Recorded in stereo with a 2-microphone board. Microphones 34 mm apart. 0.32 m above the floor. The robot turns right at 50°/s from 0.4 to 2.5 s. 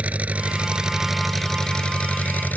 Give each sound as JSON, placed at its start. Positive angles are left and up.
{"t": 0.0, "sound": "an engine running", "azimuth_deg": -45}